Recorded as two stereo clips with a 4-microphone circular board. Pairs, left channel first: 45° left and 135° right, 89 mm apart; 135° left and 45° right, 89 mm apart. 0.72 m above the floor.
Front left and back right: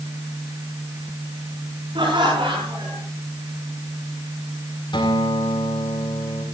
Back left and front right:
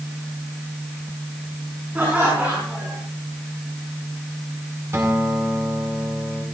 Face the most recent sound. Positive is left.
turn(degrees=15)